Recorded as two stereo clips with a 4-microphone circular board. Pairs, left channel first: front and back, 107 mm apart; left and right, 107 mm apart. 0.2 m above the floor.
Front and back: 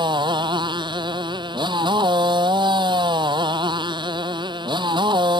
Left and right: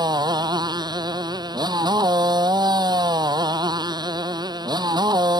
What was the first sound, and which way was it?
A motorcycle, 140° right.